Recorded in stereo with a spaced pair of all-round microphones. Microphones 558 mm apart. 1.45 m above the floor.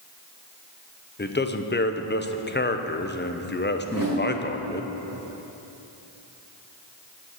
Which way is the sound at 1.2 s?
20° left (ahead or behind).